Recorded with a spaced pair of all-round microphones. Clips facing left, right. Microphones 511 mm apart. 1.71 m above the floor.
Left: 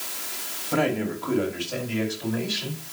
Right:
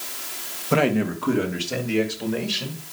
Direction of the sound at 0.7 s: 80° right.